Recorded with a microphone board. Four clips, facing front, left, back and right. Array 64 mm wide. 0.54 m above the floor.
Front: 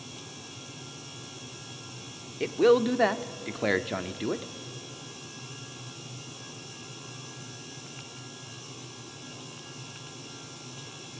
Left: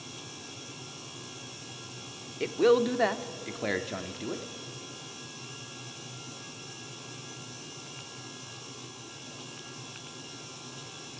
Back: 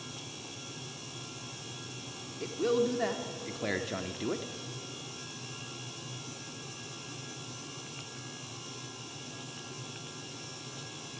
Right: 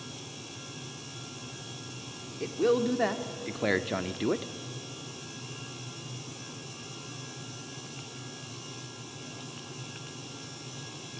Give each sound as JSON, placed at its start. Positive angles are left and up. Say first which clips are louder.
{"t": 2.4, "sound": "a man speaking", "louder": "left 3 dB, front 7 dB", "azimuth_deg": 30, "distance_m": 1.1}